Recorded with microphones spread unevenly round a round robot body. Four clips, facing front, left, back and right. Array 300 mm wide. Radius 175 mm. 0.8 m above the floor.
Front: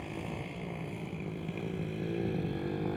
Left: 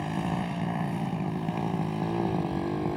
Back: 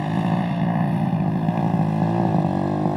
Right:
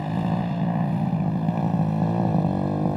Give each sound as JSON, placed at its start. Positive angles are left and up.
{"t": 0.0, "sound": "a motorcycle", "azimuth_deg": -165}